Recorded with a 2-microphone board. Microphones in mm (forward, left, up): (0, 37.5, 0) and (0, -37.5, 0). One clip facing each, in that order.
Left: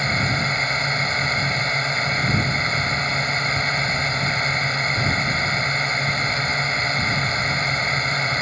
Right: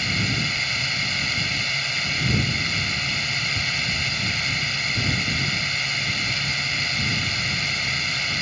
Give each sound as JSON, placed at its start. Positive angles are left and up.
{"t": 0.0, "sound": "a drone", "side_deg": 35}